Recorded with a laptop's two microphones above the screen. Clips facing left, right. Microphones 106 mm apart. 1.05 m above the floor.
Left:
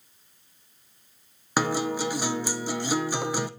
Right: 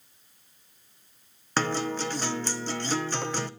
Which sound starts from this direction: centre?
A guitar, at 1.6 s.